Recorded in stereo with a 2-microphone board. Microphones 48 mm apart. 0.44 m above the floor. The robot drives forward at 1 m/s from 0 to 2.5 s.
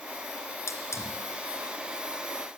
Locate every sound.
0.7 s a hiss: 70° left (ahead or behind), 3 m; by 1.2 s 80° left, 2.5 m